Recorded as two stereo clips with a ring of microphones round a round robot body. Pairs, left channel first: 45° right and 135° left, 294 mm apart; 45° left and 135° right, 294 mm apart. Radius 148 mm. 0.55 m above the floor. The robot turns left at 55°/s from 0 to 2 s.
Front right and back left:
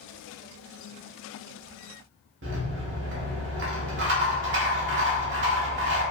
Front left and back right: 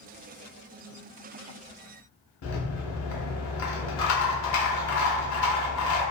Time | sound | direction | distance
2.4 | a rattle | 80° left | 0.8 m